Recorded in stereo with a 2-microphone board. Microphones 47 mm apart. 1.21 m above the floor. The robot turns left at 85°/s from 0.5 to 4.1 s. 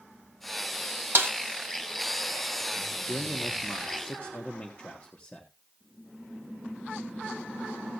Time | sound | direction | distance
1.1 | a snare drum | 60° right (ahead or behind) | 1.6 m
3.1 | a man speaking | 125° left | 1.5 m